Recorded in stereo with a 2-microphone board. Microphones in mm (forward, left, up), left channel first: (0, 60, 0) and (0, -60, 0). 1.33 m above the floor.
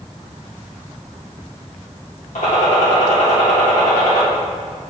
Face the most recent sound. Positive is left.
turn(degrees=75)  # may be behind; listen again after turning